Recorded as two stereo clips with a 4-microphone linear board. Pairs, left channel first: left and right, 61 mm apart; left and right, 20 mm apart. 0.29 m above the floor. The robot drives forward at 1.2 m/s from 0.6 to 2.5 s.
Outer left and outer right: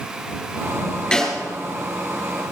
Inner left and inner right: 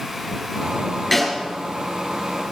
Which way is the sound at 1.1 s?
10° left (ahead or behind).